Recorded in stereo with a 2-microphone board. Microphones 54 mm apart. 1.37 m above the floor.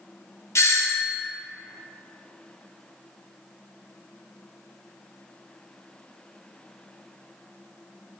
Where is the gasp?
No gasp in this recording.